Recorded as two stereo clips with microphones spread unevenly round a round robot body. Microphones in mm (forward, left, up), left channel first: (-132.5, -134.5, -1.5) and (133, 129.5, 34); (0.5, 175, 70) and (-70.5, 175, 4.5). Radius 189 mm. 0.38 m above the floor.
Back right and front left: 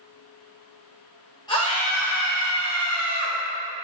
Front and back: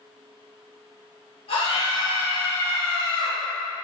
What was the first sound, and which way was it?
A scream, 65° right.